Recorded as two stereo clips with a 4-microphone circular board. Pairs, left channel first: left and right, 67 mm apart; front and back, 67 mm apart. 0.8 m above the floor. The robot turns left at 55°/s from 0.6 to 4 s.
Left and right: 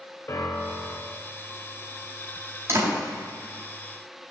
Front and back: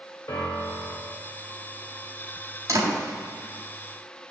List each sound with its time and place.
0.3 s a piano: 40° left, 2 m; by 1.2 s 5° left, 2 m
2.7 s a door slam: 140° right, 4 m; by 3.0 s 155° right, 4 m